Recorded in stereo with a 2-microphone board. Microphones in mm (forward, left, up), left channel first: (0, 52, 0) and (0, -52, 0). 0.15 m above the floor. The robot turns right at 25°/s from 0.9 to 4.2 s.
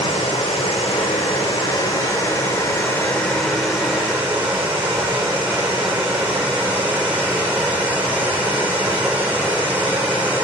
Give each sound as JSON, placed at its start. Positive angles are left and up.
{"t": 0.0, "sound": "running water", "azimuth_deg": 115, "distance_m": 3.0}